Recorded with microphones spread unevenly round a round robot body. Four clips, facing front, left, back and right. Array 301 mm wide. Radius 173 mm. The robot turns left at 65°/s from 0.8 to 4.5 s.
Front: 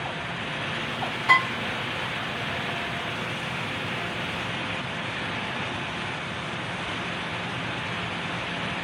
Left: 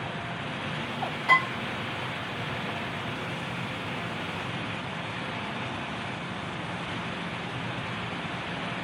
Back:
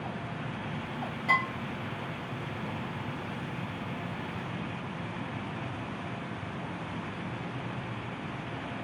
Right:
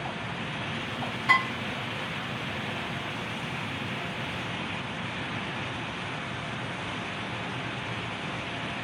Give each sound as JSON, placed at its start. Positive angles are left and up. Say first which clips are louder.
{"t": 1.3, "sound": "dishes clattering", "louder": "left 2 dB, front 7 dB", "azimuth_deg": 180, "distance_m": 2.5}